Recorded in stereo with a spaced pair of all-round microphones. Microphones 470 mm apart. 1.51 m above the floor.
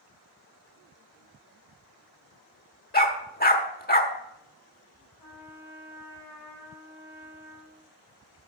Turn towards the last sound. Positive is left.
turn(degrees=55)  # may be behind; listen again after turning